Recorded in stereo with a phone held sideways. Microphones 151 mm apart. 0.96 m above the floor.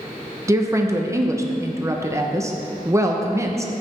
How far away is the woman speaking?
About 0.8 m.